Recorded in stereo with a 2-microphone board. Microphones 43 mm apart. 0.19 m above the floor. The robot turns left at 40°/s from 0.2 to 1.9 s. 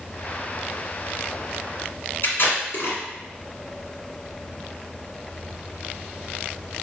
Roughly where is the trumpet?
No trumpet in this recording.